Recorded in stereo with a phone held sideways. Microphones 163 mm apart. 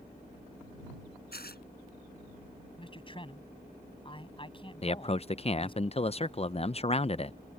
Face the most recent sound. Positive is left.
turn(degrees=40)  # may be behind; listen again after turning